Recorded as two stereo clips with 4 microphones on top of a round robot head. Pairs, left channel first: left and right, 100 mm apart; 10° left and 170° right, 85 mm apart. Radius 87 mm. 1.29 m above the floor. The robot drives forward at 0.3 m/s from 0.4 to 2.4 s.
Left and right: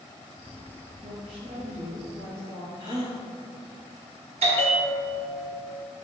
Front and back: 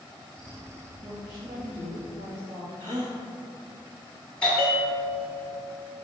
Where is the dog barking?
No dog barking in this recording.